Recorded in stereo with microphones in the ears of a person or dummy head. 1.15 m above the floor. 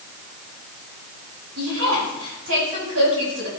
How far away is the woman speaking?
About 8 m.